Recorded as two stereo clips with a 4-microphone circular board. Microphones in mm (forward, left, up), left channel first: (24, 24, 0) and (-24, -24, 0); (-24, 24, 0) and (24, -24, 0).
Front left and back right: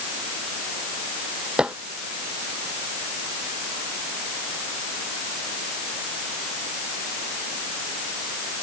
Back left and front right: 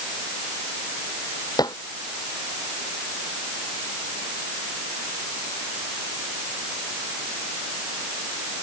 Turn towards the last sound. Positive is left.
turn(degrees=150)